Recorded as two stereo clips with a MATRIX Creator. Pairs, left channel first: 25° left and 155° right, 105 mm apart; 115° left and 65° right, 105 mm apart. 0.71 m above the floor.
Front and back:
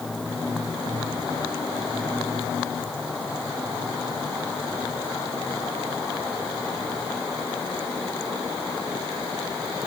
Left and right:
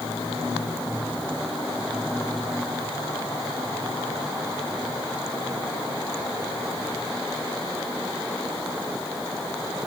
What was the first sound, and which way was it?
Only background noise.